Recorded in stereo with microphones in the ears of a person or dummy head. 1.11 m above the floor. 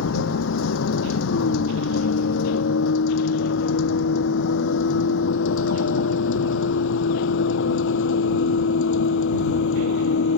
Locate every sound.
0.0 s a vehicle: 75° left (ahead or behind); by 10.4 s 70° left (ahead or behind)